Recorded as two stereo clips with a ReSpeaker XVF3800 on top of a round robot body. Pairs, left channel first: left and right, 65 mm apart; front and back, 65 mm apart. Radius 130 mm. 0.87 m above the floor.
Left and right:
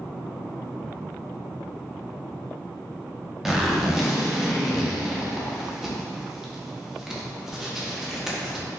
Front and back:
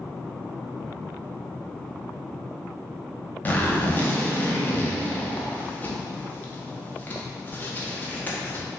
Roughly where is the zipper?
Ahead.